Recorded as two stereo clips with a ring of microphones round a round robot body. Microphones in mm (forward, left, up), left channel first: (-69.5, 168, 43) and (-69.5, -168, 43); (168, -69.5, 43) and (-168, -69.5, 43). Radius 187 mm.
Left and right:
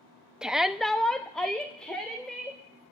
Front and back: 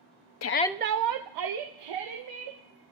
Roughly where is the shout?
Ahead.